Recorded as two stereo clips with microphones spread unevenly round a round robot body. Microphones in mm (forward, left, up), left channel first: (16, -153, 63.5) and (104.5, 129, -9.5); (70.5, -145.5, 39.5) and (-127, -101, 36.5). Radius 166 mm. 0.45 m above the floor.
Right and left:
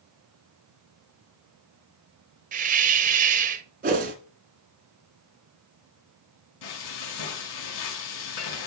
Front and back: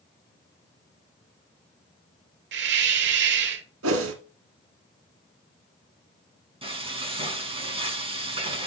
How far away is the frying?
About 5.5 m.